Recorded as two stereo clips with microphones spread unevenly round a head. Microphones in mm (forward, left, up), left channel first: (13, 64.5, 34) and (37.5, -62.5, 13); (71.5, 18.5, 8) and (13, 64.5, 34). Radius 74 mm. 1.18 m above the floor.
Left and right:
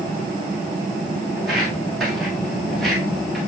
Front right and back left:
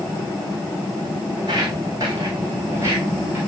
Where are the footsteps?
175° right, 2.5 m; by 3.4 s straight behind, 1.7 m.